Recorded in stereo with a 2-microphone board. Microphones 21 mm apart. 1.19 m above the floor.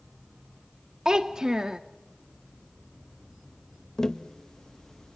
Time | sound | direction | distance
1.1 | a child speaking | 30° right (ahead or behind) | 0.6 m
4.0 | tapping | 25° left (ahead or behind) | 1.0 m